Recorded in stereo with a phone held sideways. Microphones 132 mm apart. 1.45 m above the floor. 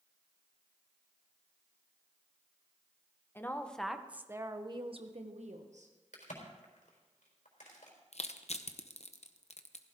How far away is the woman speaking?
About 1.2 m.